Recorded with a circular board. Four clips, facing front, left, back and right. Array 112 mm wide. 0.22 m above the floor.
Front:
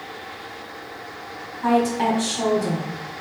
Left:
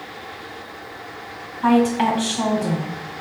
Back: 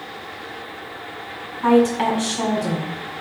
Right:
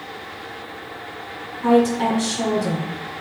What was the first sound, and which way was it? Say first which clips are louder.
A woman speaking: even, back 3 dB; 95° left.